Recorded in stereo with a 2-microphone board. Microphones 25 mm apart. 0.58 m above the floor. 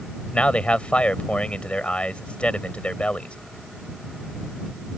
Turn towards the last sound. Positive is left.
turn(degrees=60)  # may be behind; listen again after turning